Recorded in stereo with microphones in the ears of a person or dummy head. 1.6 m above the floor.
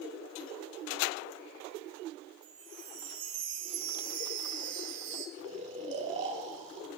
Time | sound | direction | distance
2.4 | a chime | 60° right (ahead or behind) | 1.3 m
5.4 | snoring | 35° right (ahead or behind) | 0.9 m